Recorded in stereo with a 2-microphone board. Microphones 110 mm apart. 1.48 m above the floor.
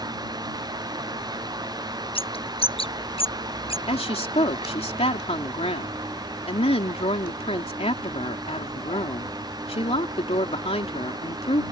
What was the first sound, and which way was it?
A bird, 60° left (ahead or behind).